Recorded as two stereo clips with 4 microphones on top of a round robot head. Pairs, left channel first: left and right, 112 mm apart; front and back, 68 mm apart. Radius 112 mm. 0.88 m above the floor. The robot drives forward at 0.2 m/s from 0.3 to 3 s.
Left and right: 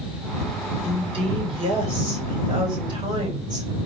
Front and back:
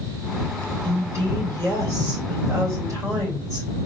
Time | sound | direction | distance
0.8 | a woman speaking | 130° right | 3 m